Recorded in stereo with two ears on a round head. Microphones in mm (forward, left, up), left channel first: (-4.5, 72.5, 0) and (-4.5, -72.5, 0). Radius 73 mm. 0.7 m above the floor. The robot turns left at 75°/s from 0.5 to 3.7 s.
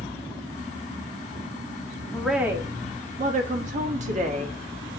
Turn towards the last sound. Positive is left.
turn(degrees=-110)